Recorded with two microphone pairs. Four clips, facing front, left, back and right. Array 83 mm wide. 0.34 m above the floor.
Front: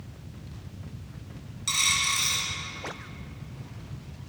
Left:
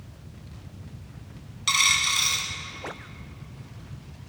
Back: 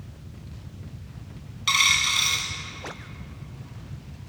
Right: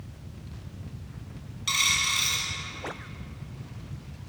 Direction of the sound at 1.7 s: 140° left.